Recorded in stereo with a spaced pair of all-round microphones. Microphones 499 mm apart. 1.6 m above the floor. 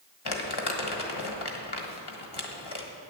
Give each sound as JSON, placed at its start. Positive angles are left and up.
{"t": 0.2, "sound": "crumpling", "side_deg": 50, "distance_m": 1.2}